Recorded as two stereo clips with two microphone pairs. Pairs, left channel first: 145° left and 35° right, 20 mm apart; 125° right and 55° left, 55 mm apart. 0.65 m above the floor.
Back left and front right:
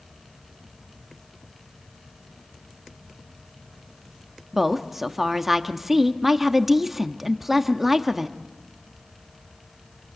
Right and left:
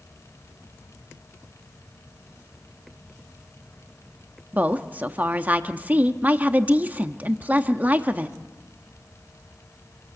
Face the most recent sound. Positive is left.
turn(degrees=35)